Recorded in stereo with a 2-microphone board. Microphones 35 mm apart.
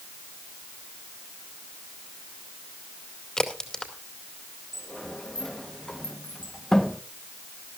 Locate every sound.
3.4 s a crack: 20° left (ahead or behind), 2.5 m
4.7 s a sliding door: 15° left (ahead or behind), 1.1 m